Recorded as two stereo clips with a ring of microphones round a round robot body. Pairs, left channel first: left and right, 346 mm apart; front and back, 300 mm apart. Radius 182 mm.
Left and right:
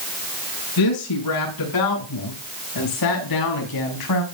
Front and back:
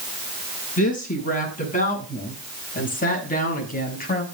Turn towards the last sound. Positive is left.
turn(degrees=60)